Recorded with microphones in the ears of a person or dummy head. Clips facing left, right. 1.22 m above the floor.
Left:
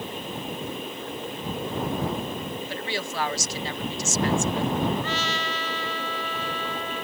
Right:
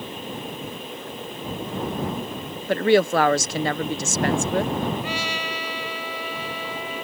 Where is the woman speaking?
45° right (ahead or behind).